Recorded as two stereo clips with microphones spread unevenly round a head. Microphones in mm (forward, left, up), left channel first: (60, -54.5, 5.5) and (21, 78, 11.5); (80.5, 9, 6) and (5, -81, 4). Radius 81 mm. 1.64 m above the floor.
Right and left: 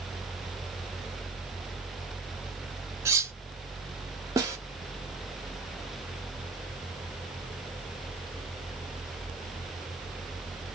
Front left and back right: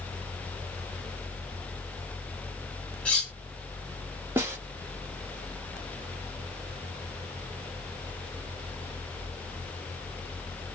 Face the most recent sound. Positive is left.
turn(degrees=165)